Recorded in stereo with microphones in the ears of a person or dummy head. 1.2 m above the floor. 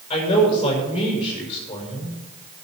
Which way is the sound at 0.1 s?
30° left (ahead or behind).